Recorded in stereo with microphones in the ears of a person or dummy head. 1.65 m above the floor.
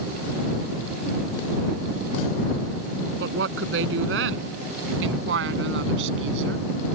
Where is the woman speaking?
80° right.